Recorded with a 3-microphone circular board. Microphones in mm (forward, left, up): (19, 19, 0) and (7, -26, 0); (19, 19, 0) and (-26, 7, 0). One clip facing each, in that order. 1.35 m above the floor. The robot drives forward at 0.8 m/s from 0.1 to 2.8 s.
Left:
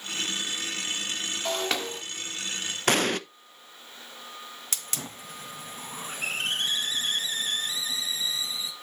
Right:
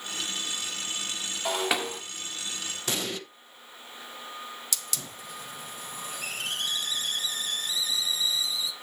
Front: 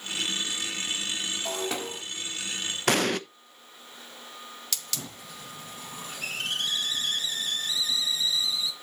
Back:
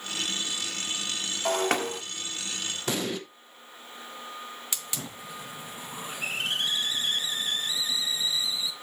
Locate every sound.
1.4 s breaking glass: 175° left, 1.4 m
2.9 s an explosion: 40° left, 0.8 m
4.7 s a hiss: 125° left, 1.8 m